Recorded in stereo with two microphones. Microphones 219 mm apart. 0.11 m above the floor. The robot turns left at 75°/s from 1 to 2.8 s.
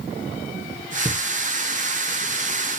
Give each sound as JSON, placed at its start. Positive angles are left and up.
{"t": 1.1, "sound": "knocking", "side_deg": 0, "distance_m": 4.0}